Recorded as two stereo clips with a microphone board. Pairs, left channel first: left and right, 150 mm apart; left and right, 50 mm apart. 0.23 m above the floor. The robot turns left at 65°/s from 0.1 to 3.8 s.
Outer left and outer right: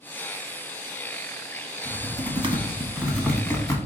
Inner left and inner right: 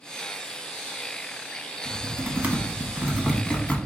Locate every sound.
1.9 s typing on a keyboard: 55° right (ahead or behind), 1.0 m; by 3.8 s 30° left (ahead or behind), 1.0 m